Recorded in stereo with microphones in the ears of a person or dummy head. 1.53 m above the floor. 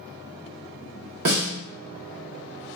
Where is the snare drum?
45° right (ahead or behind), 0.9 m.